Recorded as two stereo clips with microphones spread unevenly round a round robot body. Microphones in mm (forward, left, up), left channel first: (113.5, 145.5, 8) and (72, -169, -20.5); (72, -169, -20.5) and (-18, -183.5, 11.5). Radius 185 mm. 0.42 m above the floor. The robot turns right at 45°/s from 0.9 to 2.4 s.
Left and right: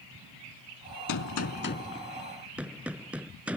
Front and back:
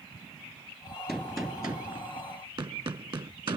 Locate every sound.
1.1 s a gunshot: 115° left; by 3.6 s 175° left